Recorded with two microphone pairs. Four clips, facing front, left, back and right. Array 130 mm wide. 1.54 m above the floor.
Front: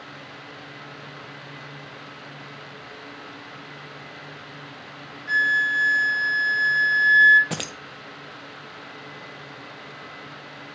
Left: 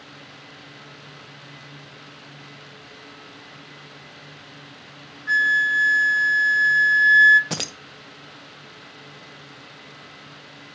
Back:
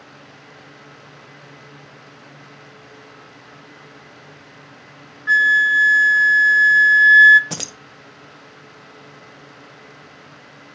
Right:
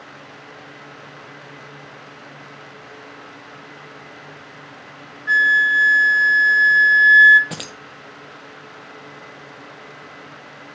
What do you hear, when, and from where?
5.3 s a flute: 170° right, 0.9 m
7.5 s keys jangling: 100° left, 0.6 m